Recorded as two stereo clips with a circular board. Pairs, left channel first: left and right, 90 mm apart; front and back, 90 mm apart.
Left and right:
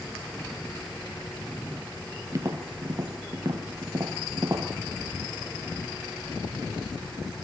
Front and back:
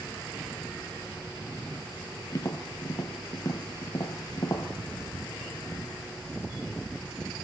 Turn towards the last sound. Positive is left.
turn(degrees=-45)